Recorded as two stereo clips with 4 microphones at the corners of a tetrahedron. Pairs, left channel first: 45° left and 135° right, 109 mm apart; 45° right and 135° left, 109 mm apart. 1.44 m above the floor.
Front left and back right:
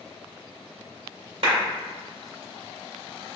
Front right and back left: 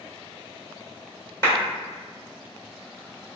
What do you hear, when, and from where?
1.4 s a clap: 105° right, 1.8 m